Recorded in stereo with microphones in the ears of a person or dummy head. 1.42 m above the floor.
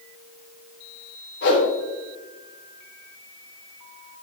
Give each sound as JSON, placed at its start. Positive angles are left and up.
{"t": 1.4, "sound": "a whoosh", "side_deg": 60, "distance_m": 3.5}